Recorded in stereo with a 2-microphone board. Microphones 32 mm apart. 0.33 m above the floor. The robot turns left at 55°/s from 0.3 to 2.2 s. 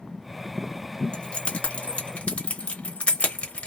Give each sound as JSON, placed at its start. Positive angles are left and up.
{"t": 1.1, "sound": "keys jangling", "side_deg": 30, "distance_m": 0.8}